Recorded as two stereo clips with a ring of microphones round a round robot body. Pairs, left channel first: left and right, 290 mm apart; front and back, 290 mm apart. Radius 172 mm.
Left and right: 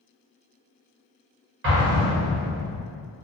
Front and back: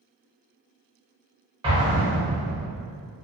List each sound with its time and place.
1.6 s an explosion: 115° right, 1.4 m